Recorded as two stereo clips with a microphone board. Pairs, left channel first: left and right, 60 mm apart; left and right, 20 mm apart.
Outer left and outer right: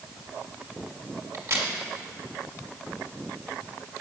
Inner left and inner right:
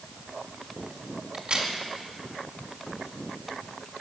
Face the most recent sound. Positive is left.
turn(degrees=-55)  # may be behind; listen again after turning